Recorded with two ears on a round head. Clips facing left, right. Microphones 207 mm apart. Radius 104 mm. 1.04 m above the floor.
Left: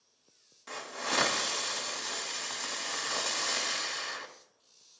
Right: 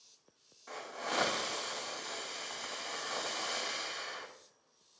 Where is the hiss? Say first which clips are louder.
Left 2 dB; 40° left (ahead or behind), 1.7 m.